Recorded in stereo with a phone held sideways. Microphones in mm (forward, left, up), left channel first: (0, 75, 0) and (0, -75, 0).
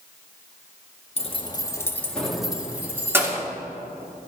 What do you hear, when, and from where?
1.2 s keys jangling: 45° left (ahead or behind), 0.8 m; by 3.4 s 20° right (ahead or behind), 1.5 m